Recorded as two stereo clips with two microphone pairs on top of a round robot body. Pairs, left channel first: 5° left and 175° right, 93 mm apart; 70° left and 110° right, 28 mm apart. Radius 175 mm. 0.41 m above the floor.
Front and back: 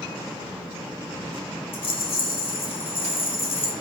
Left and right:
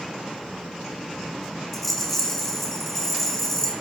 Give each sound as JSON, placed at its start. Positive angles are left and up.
{"t": 1.7, "sound": "a rattle", "azimuth_deg": -10, "distance_m": 3.0}